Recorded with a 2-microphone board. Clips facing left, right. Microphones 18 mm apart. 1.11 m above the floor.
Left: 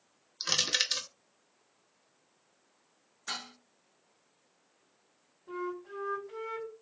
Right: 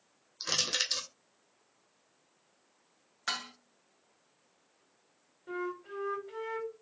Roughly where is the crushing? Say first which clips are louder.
Left 2 dB; centre.